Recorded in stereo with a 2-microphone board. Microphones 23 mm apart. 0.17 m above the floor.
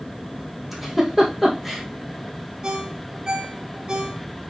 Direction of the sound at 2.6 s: 35° right (ahead or behind).